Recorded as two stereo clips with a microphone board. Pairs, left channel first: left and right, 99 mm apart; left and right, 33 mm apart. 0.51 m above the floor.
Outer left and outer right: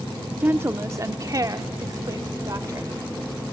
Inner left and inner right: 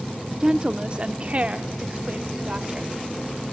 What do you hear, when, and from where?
0.4 s a woman speaking: 20° right (ahead or behind), 0.8 m; by 2.9 s 35° right (ahead or behind), 1.7 m